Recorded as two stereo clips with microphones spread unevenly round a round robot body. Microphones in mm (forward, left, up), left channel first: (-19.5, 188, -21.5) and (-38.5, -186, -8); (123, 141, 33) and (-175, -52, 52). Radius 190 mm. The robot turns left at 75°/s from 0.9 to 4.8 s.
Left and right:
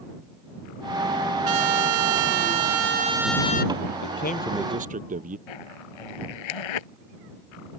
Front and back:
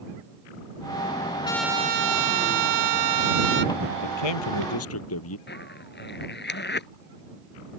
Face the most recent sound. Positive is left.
turn(degrees=95)